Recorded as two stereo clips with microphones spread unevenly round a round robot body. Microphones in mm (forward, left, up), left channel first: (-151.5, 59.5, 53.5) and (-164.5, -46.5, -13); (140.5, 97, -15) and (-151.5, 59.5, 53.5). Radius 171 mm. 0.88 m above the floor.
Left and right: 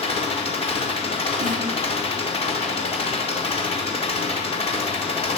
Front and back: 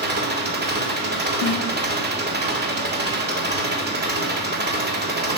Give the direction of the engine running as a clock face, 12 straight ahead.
8 o'clock.